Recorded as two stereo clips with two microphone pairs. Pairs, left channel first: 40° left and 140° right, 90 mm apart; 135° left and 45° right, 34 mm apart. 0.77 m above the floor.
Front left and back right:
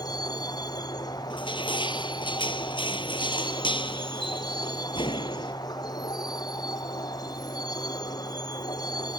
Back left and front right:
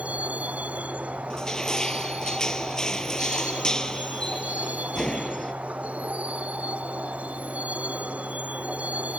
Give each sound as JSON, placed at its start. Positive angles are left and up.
{"t": 0.0, "sound": "a vehicle", "azimuth_deg": -5}
{"t": 1.3, "sound": "crushing", "azimuth_deg": 65}